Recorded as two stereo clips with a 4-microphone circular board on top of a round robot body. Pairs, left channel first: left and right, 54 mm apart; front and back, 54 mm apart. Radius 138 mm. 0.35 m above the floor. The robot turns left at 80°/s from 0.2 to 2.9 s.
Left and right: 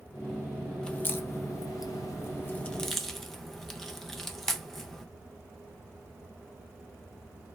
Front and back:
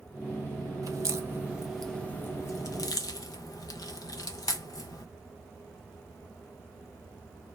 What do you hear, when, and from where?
0.8 s a crack: 165° left, 0.5 m; by 5.0 s straight ahead, 0.5 m